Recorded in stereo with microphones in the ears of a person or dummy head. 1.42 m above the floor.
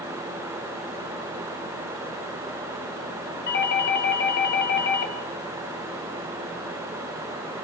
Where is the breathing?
No breathing in this recording.